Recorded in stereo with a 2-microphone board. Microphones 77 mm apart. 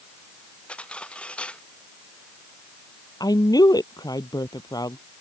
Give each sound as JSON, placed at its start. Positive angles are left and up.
{"t": 0.7, "sound": "cutlery clinking", "side_deg": 15}
{"t": 3.2, "sound": "a woman speaking", "side_deg": 55}